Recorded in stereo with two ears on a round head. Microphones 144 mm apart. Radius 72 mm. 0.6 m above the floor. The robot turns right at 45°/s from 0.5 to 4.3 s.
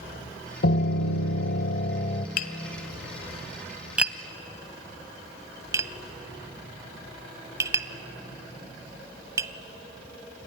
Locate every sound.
0.6 s a piano: 65° left, 1.1 m; by 2.3 s 140° left, 1.1 m
2.4 s tapping: 55° left (ahead or behind), 0.7 m; by 9.5 s 20° right (ahead or behind), 0.7 m